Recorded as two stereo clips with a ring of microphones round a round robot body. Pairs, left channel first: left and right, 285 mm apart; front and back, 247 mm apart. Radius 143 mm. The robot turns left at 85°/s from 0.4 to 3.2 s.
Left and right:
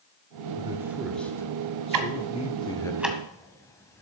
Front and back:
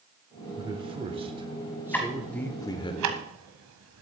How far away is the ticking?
About 1.5 m.